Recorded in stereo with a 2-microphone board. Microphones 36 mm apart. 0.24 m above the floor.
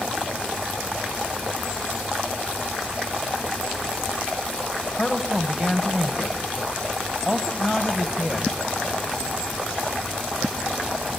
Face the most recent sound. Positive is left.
turn(degrees=-15)  # may be behind; listen again after turning